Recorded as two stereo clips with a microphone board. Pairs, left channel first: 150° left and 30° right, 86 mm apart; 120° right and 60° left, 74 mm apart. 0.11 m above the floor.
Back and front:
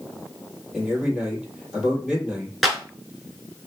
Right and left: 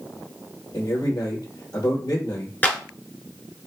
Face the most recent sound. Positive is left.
turn(degrees=-115)